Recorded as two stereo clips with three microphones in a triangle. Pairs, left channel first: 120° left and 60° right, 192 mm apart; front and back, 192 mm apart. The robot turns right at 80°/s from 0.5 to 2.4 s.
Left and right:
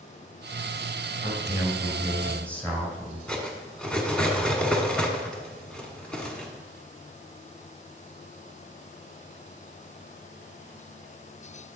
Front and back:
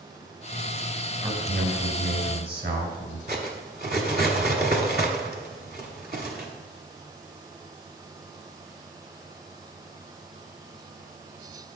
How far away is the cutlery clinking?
About 1.2 m.